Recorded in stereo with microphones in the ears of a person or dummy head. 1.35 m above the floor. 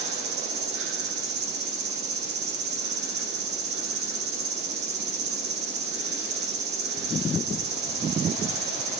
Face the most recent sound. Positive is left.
turn(degrees=-55)  # may be behind; listen again after turning